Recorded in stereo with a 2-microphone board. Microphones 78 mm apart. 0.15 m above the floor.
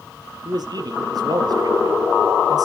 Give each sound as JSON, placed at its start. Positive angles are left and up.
{"t": 0.5, "sound": "a man speaking", "side_deg": -60, "distance_m": 2.5}